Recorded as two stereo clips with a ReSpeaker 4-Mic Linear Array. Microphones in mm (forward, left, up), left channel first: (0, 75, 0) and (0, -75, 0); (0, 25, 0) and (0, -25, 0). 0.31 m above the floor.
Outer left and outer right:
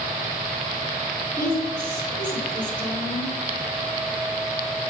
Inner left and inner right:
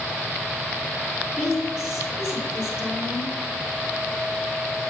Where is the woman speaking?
15° right (ahead or behind), 3.5 m.